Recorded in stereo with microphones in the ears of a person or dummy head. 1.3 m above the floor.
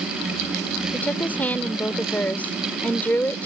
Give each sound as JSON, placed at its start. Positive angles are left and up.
{"t": 0.9, "sound": "a woman speaking", "side_deg": 10}